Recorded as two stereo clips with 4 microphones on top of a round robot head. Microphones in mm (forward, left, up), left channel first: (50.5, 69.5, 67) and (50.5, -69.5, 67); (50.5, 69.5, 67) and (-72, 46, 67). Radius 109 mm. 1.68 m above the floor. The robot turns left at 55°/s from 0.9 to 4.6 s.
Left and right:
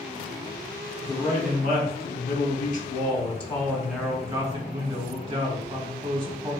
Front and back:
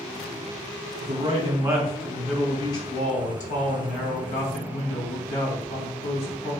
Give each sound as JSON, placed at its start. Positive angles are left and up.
{"t": 1.0, "sound": "a man speaking", "azimuth_deg": 165, "distance_m": 1.1}